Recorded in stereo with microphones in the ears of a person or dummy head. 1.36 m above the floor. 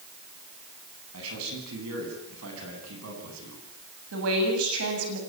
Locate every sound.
1.1 s a man speaking: 80° right, 9.5 m
4.1 s a woman speaking: 80° right, 7.5 m